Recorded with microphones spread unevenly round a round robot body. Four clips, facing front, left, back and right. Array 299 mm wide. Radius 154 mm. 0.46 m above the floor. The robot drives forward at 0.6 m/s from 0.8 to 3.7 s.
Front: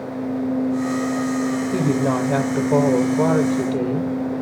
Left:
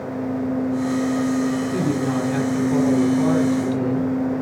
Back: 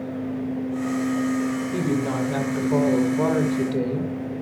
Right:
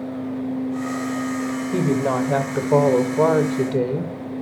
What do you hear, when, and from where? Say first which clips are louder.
1.7 s a woman speaking: right 1 dB, front 6 dB; 45° right, 2.5 m; by 4.1 s 75° right, 2 m